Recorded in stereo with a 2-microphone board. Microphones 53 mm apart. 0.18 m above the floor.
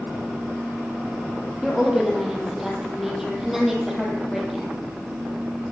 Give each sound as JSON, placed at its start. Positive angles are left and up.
{"t": 1.6, "sound": "a woman speaking", "side_deg": -5, "distance_m": 5.5}